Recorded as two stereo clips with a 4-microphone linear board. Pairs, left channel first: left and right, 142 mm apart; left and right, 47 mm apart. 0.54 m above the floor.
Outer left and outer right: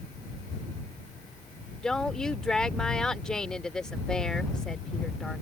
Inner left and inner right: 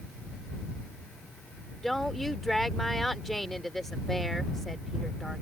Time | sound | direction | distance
1.8 | a woman speaking | 5° left (ahead or behind) | ?